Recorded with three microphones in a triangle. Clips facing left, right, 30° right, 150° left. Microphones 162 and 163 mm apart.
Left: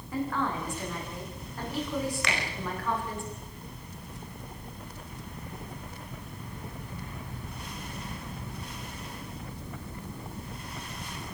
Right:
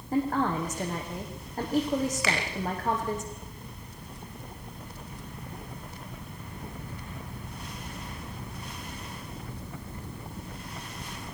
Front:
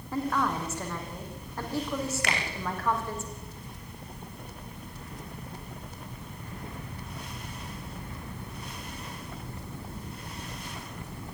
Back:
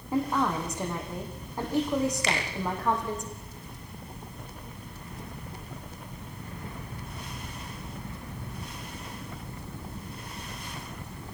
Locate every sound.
0.1 s a woman speaking: 135° right, 6 m
2.2 s a finger snap: 5° right, 6 m